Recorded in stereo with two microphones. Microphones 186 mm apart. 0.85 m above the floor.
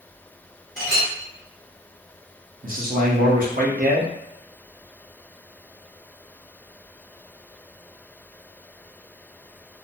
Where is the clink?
55° right (ahead or behind), 1.6 m.